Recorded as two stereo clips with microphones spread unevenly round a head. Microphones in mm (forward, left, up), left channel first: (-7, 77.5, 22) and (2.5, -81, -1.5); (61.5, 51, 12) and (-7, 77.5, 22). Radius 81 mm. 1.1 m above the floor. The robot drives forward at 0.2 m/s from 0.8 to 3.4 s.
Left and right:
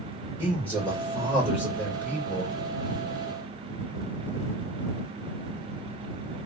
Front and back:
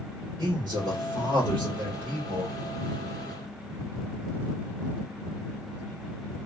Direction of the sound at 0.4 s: Straight behind.